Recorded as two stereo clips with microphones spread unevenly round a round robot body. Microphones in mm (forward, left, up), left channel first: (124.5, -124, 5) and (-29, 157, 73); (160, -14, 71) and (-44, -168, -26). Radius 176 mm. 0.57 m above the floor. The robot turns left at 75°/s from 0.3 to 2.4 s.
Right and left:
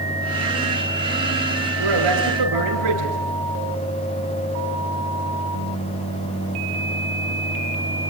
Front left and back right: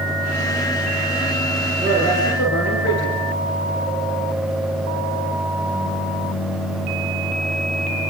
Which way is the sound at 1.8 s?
135° left.